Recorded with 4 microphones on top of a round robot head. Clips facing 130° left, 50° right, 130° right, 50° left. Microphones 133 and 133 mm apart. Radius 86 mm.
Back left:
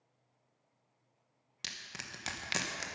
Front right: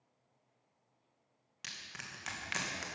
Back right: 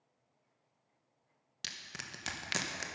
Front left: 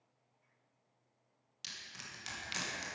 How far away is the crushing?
About 0.9 m.